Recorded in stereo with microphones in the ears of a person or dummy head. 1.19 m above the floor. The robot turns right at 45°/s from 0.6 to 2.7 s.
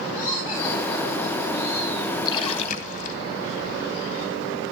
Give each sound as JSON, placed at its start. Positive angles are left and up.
{"t": 0.1, "sound": "laughter", "azimuth_deg": 165, "distance_m": 5.0}
{"t": 2.2, "sound": "a splash", "side_deg": 25, "distance_m": 2.0}